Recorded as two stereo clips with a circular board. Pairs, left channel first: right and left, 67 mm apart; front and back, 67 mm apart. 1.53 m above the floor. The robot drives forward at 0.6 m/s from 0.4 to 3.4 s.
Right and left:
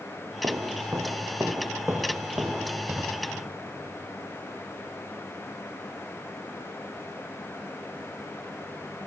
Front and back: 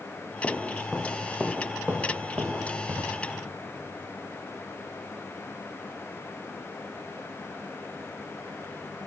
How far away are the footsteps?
About 2 m.